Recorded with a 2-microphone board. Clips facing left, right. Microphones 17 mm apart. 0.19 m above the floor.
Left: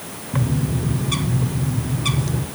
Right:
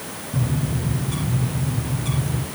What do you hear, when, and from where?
0.3 s a bird: 50° left (ahead or behind), 1.3 m